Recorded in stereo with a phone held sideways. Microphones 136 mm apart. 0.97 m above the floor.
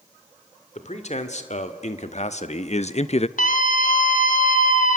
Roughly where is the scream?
Left.